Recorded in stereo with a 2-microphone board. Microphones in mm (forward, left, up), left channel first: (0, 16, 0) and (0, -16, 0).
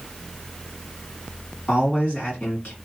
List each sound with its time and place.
1.7 s a man speaking: 50° left (ahead or behind), 2.5 m